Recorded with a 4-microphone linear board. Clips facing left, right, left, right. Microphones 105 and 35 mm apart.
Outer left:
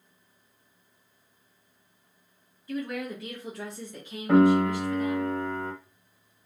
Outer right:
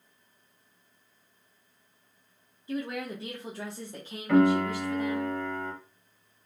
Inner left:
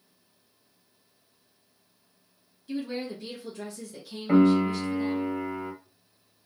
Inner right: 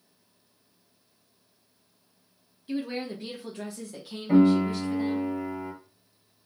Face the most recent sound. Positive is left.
turn(degrees=30)  # may be behind; listen again after turning